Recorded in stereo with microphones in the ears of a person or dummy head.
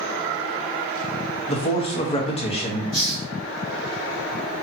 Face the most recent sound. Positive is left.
turn(degrees=35)  # may be behind; listen again after turning